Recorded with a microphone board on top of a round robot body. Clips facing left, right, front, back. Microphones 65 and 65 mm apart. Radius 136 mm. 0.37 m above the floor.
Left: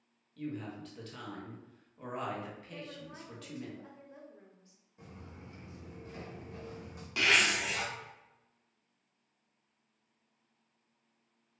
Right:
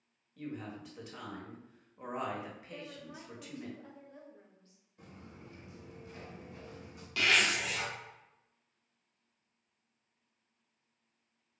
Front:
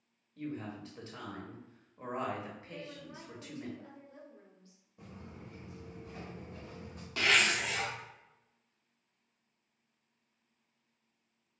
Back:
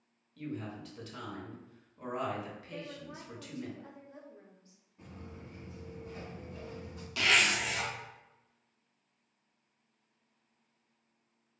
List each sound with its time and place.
0.4 s a woman speaking: 30° right, 1.3 m
2.7 s a woman speaking: 150° left, 1.0 m
5.0 s footsteps: 15° left, 1.3 m; by 7.1 s 50° left, 1.9 m
7.2 s a zipper: 30° left, 1.4 m